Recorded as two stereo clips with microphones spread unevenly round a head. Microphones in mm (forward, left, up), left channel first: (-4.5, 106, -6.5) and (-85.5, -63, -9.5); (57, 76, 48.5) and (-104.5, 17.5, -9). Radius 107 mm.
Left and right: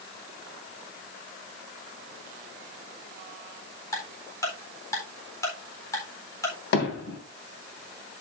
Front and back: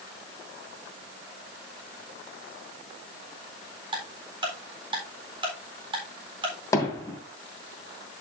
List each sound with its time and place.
3.9 s ticking: 140° left, 4 m
6.7 s hammering: 85° left, 3 m